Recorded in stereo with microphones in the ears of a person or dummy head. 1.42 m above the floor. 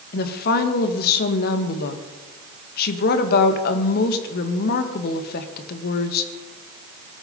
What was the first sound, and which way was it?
A woman speaking, 55° left (ahead or behind).